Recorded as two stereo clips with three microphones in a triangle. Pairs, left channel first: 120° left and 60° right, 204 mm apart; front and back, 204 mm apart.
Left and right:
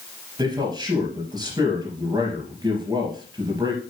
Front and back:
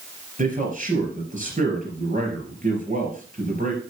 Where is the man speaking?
130° right, 3.5 m.